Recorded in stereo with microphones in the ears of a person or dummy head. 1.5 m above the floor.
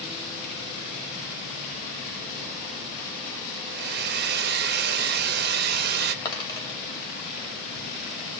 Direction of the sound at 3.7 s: 60° right (ahead or behind).